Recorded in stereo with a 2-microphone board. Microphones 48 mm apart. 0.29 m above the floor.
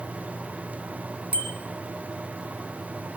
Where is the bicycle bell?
30° right (ahead or behind), 2 m.